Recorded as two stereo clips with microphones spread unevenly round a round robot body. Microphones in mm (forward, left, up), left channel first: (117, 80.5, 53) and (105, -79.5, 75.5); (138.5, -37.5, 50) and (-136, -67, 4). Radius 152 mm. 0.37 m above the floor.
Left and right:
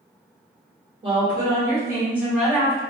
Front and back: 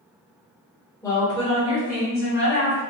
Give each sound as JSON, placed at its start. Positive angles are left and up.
{"t": 1.0, "sound": "a woman speaking", "azimuth_deg": -80, "distance_m": 1.4}